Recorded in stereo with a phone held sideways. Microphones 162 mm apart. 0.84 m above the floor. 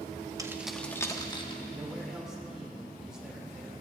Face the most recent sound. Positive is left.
turn(degrees=-5)  # may be behind; listen again after turning